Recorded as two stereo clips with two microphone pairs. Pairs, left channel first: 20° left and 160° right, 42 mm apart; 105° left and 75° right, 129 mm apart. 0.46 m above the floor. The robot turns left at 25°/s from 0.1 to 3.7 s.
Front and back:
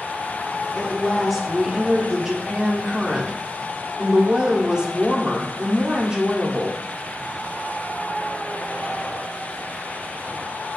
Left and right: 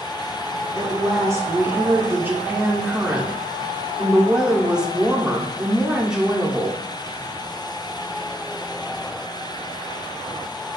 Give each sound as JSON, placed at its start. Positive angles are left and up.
{"t": 0.8, "sound": "a woman speaking", "azimuth_deg": -75, "distance_m": 0.8}